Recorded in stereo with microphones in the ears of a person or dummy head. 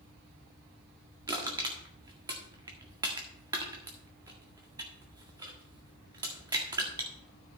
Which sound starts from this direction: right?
Crushing, at 1.3 s.